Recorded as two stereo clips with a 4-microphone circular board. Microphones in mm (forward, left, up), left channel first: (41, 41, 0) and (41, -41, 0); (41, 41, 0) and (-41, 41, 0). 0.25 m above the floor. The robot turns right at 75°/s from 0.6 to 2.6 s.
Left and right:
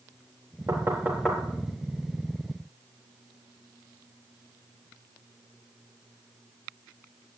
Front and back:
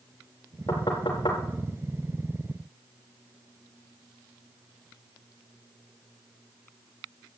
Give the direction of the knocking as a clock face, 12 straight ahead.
2 o'clock.